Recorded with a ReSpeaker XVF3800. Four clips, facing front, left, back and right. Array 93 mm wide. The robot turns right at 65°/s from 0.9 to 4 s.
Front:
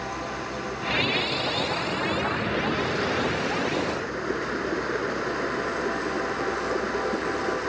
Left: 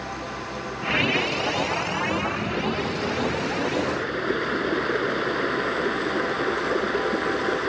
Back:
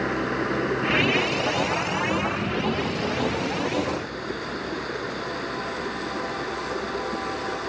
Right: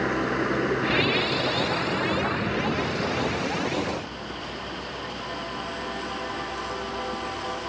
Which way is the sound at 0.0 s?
130° right.